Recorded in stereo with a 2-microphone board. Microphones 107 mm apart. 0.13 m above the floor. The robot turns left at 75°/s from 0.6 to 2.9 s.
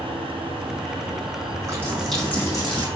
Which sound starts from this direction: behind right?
A running tap, at 1.6 s.